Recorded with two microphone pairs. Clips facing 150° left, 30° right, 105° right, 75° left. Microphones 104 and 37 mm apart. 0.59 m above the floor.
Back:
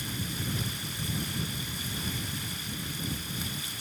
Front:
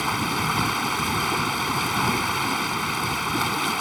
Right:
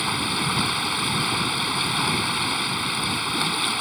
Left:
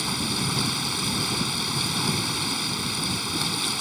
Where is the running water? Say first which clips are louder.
Front 12 dB, right 3 dB; 40° right.